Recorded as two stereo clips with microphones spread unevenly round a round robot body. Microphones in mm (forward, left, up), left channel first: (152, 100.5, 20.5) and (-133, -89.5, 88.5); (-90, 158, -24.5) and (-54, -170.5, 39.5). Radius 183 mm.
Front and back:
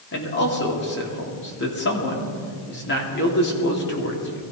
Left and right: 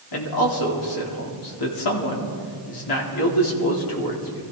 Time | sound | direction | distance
0.1 | a man speaking | 90° left | 3 m